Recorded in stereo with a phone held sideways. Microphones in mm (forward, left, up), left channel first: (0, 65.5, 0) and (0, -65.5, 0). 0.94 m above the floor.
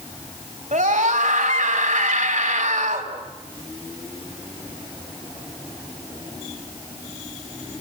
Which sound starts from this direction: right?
A scream, at 0.7 s.